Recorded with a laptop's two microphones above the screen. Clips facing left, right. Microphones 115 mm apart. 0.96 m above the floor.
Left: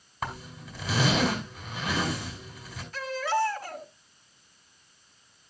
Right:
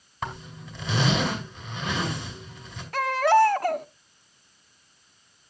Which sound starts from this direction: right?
A baby crying, at 2.9 s.